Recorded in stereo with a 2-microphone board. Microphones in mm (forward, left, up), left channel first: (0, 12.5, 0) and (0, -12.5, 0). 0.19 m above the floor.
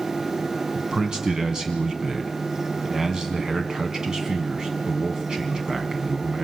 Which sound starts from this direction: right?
A man speaking, at 0.8 s.